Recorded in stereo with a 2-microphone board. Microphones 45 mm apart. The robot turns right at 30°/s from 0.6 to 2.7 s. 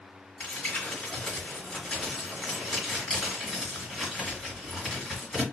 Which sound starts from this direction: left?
Crumpling, at 0.4 s.